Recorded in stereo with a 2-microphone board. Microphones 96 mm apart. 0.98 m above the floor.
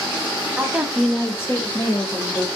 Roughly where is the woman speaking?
Centre.